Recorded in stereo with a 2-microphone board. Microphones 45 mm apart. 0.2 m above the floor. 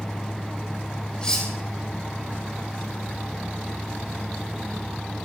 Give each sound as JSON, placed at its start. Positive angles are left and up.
{"t": 1.2, "sound": "cutlery clinking", "side_deg": 20, "distance_m": 5.5}